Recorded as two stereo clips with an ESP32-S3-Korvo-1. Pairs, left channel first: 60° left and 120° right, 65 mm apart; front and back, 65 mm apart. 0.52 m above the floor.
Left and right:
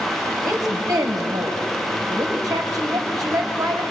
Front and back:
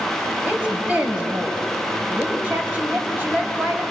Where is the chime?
No chime in this recording.